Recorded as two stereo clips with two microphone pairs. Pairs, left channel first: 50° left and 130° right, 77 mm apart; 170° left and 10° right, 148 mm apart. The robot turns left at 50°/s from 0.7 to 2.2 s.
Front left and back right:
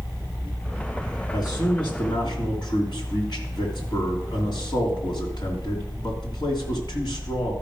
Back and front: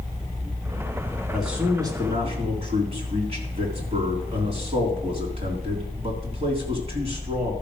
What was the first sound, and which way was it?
A man speaking, 80° left.